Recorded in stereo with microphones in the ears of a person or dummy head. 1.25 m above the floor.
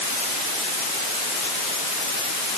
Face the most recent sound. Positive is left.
No sound to turn to.